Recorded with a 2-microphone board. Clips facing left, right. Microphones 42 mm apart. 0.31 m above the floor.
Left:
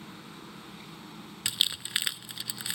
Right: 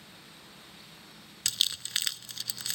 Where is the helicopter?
45° left (ahead or behind); by 2.8 s 35° left (ahead or behind).